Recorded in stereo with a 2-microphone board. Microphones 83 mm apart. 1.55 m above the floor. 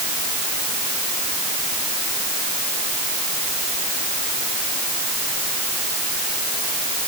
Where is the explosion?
No explosion in this recording.